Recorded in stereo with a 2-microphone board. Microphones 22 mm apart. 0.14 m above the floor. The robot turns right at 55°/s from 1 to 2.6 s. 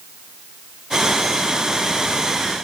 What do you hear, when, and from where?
Only background noise.